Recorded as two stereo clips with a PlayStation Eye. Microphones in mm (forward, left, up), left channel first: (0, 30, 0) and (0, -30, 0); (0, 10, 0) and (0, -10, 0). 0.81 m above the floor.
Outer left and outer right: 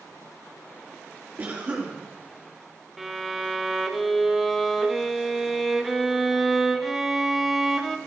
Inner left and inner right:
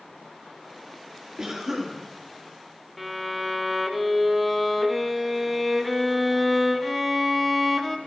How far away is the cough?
About 2 m.